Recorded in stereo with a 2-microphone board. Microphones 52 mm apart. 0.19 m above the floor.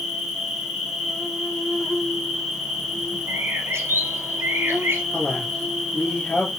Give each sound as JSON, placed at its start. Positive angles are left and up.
{"t": 0.0, "sound": "an insect", "side_deg": -5, "distance_m": 2.5}
{"t": 3.3, "sound": "a bird", "side_deg": -55, "distance_m": 0.7}
{"t": 5.1, "sound": "a man speaking", "side_deg": 30, "distance_m": 2.5}